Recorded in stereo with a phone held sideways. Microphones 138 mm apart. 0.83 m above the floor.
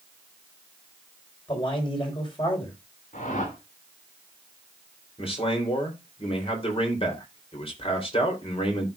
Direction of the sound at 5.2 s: 45° left (ahead or behind).